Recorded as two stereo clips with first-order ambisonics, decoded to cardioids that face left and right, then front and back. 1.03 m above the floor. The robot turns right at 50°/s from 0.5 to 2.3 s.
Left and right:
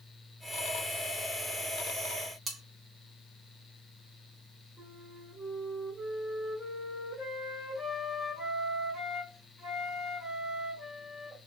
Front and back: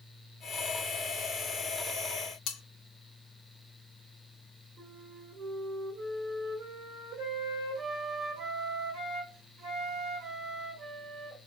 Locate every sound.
2.5 s cutlery clinking: 25° right, 0.6 m
4.8 s a flute: 155° right, 0.9 m